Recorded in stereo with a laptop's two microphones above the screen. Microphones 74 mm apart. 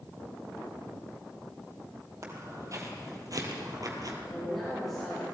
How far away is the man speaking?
About 4.5 m.